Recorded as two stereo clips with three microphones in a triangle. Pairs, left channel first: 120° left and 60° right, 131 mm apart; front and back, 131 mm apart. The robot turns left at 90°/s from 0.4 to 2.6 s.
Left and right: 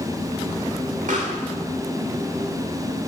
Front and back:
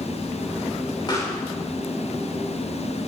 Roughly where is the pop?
Ahead right.